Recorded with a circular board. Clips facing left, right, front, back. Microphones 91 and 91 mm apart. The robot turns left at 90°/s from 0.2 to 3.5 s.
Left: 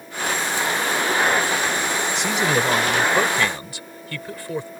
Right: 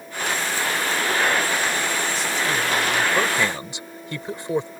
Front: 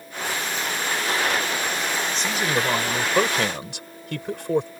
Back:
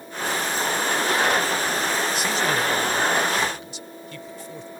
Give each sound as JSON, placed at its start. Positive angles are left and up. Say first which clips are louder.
{"t": 2.1, "sound": "a man speaking", "louder": "left 3 dB, back 1 dB", "azimuth_deg": 100}